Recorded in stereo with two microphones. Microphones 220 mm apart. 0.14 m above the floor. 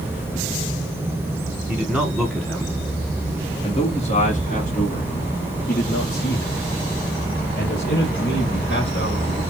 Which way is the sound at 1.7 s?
10° right (ahead or behind).